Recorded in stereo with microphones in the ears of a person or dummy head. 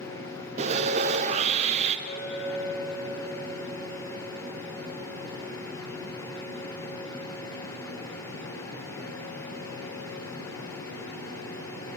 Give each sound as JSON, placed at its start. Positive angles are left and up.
{"t": 0.6, "sound": "sawing", "side_deg": -40, "distance_m": 0.7}
{"t": 2.1, "sound": "a clink", "side_deg": 55, "distance_m": 3.0}